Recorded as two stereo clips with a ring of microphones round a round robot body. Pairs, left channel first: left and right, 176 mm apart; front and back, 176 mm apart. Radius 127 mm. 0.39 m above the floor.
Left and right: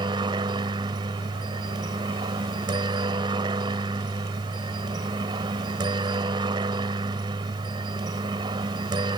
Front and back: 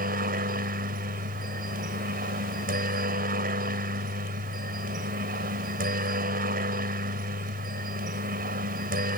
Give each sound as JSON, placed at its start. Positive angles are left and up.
{"t": 0.0, "sound": "a helicopter", "azimuth_deg": -155}